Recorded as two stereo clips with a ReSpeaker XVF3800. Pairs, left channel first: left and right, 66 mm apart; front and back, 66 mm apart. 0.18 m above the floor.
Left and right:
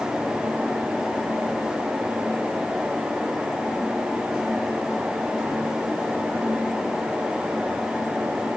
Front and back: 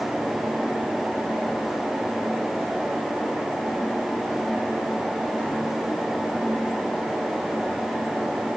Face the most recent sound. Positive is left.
No sound to turn to.